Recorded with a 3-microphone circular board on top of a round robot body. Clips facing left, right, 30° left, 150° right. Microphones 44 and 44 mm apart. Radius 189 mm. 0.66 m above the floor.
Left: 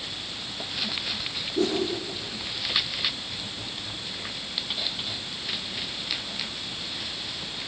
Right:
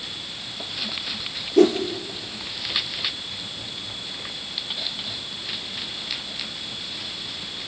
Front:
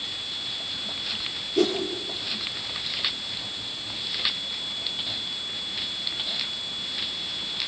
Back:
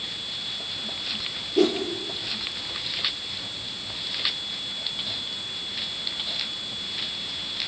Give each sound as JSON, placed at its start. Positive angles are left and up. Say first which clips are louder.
{"t": 1.6, "sound": "a whoosh", "louder": "right 10 dB, back 2 dB", "azimuth_deg": -65, "distance_m": 3.5}